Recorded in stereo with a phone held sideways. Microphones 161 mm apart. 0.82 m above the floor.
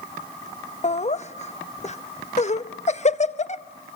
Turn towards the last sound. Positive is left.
turn(degrees=45)  # may be behind; listen again after turning